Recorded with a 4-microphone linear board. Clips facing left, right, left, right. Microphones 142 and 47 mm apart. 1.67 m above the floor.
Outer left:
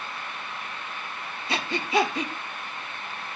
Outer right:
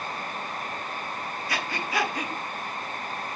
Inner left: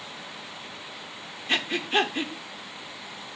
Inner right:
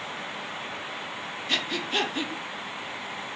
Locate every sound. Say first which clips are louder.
1.5 s breathing: outer left 6 dB, inner left 4 dB; 25° left (ahead or behind), 1.2 m